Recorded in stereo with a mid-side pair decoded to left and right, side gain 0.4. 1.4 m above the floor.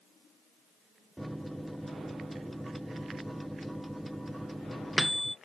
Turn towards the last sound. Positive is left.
turn(degrees=-5)